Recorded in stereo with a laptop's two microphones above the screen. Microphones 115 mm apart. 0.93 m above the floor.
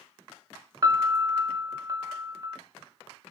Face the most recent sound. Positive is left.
turn(degrees=-30)  # may be behind; listen again after turning